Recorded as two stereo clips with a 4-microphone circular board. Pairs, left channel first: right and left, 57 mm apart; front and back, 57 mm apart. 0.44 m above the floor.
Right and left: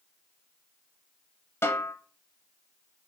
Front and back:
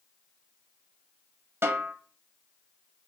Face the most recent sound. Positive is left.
turn(degrees=-135)